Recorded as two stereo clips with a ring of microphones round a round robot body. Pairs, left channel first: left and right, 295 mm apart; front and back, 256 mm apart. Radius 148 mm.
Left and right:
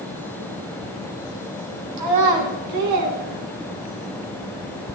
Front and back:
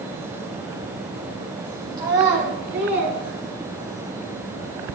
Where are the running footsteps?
I don't hear running footsteps.